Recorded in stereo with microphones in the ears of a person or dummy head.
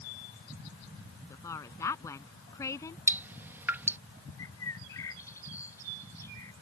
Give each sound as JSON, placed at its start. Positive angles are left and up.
{"t": 1.3, "sound": "a woman speaking", "side_deg": 15}
{"t": 3.1, "sound": "dripping", "side_deg": -15}
{"t": 4.4, "sound": "a bird", "side_deg": 15}